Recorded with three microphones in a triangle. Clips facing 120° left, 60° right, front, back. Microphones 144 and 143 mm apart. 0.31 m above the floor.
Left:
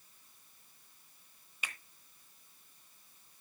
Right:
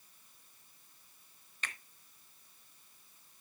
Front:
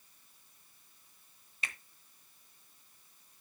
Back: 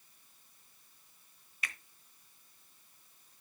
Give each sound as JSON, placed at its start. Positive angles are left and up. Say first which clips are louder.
{"t": 1.6, "sound": "a finger snap", "louder": "right 1 dB, even", "azimuth_deg": 45, "distance_m": 1.0}